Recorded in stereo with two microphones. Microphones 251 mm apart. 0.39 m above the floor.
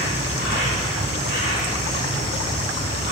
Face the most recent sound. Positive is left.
turn(degrees=-40)  # may be behind; listen again after turning